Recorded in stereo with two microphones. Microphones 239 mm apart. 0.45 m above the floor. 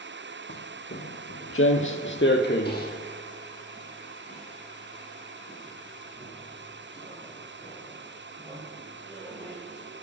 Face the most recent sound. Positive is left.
turn(degrees=10)  # may be behind; listen again after turning